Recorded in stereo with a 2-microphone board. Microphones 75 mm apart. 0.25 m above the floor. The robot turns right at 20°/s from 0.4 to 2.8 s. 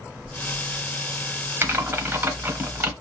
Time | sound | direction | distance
1.6 | typing on a keyboard | 30° right (ahead or behind) | 0.8 m